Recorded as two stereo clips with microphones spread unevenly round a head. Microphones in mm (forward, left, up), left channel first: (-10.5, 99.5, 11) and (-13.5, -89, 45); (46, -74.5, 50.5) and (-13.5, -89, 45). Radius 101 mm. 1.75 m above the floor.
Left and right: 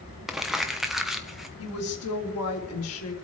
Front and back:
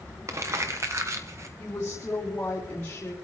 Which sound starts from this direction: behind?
Crumpling, at 0.3 s.